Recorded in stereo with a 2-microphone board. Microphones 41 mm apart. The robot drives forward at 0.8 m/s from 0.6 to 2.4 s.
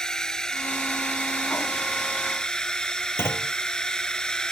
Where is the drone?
15° left (ahead or behind); by 4.5 s 20° left (ahead or behind).